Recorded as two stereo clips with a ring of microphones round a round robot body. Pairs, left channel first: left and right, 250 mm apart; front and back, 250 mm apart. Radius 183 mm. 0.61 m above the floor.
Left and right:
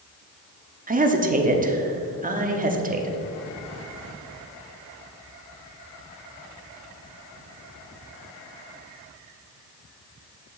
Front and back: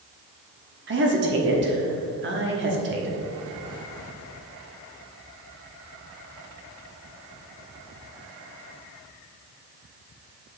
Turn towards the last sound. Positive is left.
turn(degrees=-145)